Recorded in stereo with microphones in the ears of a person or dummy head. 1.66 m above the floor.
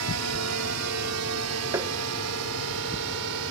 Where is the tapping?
15° right (ahead or behind).